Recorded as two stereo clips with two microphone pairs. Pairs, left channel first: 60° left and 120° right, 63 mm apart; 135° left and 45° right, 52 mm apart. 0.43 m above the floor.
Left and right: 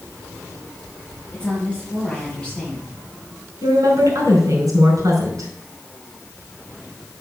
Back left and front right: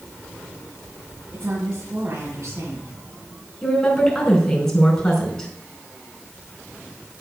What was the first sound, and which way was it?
A woman speaking, 15° right.